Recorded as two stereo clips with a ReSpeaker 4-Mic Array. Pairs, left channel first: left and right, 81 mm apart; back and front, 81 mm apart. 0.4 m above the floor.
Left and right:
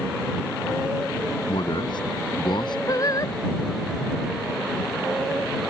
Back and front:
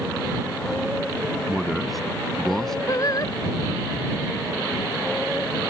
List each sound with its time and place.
1.5 s a man speaking: 85° left; by 2.8 s 95° left
2.9 s singing: 135° left